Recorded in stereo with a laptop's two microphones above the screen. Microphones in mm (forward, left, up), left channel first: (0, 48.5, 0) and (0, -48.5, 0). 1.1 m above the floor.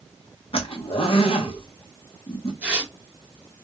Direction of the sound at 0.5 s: 70° left (ahead or behind).